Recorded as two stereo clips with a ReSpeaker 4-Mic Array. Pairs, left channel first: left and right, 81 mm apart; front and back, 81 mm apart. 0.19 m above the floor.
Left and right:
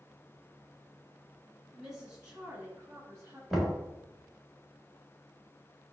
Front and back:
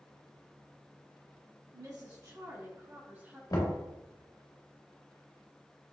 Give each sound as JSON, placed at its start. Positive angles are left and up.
{"t": 1.7, "sound": "a woman speaking", "azimuth_deg": -175, "distance_m": 2.0}
{"t": 3.5, "sound": "knocking", "azimuth_deg": 0, "distance_m": 1.7}